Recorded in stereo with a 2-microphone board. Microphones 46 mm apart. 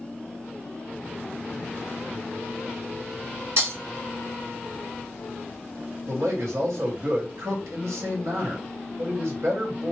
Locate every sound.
3.6 s breaking glass: 60° right (ahead or behind), 1.5 m
6.1 s a man speaking: 80° right, 1.9 m